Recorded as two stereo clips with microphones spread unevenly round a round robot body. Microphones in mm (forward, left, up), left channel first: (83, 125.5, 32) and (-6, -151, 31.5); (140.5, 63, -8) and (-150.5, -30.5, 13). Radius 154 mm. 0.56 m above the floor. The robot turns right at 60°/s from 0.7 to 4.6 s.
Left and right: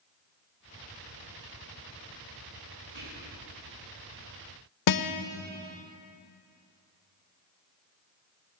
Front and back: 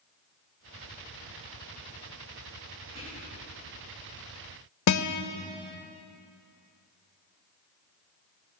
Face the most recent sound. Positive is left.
turn(degrees=55)